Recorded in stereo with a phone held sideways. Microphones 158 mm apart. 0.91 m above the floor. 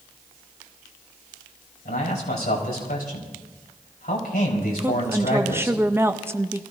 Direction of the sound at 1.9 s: 75° left (ahead or behind).